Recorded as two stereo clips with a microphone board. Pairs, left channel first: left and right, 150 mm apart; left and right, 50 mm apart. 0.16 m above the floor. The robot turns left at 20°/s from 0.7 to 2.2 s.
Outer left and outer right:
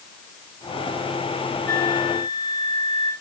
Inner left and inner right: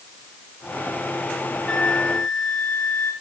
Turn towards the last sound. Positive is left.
turn(degrees=20)  # may be behind; listen again after turning